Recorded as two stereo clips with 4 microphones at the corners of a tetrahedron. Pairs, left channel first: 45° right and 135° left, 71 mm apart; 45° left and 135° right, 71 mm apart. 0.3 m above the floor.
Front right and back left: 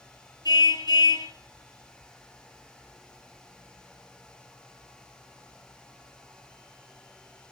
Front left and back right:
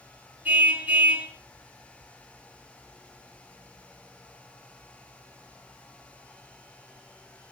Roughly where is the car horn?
Right.